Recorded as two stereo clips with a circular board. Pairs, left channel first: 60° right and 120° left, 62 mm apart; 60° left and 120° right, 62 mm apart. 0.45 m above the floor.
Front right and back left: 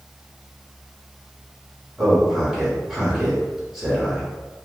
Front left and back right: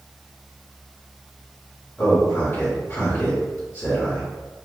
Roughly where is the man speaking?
Ahead left.